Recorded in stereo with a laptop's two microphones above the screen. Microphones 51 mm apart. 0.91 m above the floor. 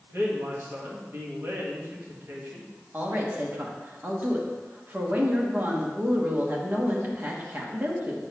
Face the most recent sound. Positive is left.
turn(degrees=-40)  # may be behind; listen again after turning